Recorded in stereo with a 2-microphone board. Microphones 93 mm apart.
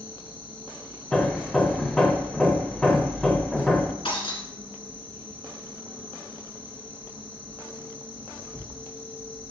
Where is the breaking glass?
75° left (ahead or behind), 1.3 m.